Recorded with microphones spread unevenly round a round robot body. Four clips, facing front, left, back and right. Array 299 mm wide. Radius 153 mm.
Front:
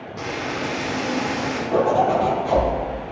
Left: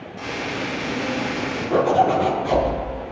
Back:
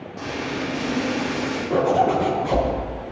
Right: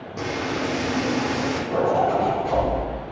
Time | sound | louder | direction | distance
0.2 | frying | right 2 dB, front 1 dB | 85° right | 6.5 m
1.7 | a zipper | left 4 dB, front 1 dB | 155° left | 6 m